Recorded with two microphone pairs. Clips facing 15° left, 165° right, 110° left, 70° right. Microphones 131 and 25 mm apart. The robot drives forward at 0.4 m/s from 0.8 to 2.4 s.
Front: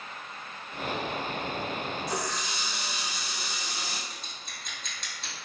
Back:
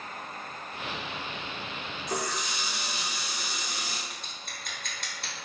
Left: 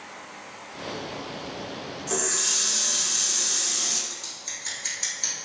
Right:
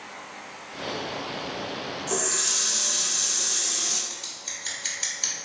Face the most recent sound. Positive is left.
turn(degrees=-145)